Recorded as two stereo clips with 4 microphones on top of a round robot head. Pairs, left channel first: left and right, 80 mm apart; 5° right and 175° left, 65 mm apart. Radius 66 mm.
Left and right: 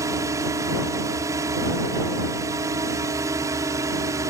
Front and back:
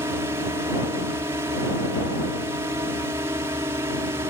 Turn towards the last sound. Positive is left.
turn(degrees=-135)